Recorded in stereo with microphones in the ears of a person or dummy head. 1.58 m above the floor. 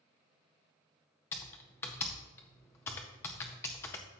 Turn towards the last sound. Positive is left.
turn(degrees=10)  # may be behind; listen again after turning